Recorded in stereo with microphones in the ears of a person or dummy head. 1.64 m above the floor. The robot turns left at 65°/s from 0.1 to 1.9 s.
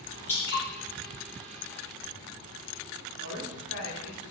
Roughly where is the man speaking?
Left.